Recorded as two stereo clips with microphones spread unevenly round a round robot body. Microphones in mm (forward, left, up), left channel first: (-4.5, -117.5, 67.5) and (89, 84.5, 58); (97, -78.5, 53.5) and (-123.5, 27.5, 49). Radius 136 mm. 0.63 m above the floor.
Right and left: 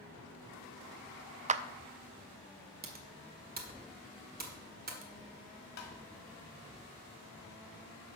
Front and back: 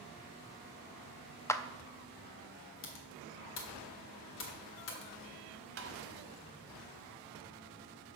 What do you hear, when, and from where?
1.5 s a clap: 45° left, 0.5 m
2.8 s typing on a keyboard: 15° left, 1.6 m
5.8 s tapping: 165° right, 1.4 m